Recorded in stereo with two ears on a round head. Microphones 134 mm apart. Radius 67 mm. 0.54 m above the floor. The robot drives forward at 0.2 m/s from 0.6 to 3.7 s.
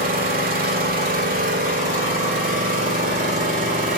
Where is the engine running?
65° right (ahead or behind), 1.7 m; by 4.0 s 55° right (ahead or behind), 1.9 m.